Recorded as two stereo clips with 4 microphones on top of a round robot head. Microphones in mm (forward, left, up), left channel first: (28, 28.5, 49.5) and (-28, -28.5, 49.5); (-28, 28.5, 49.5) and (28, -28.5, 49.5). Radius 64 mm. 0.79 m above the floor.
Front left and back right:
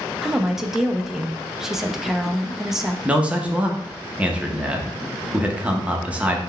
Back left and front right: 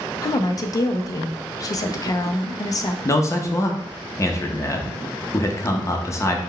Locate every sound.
0.2 s a woman speaking: 145° left, 0.6 m
3.0 s a man speaking: 160° left, 0.8 m